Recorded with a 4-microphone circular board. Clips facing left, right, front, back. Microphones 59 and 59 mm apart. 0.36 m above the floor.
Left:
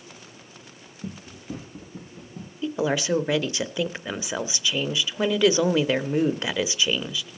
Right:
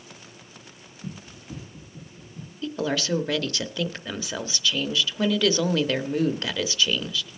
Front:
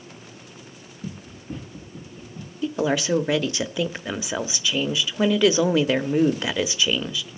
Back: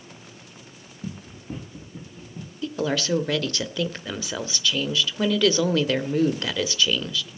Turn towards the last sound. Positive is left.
turn(degrees=50)